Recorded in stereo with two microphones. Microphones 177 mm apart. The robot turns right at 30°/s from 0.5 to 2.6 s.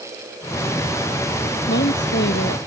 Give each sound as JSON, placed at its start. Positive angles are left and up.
{"t": 1.7, "sound": "a woman speaking", "side_deg": 70}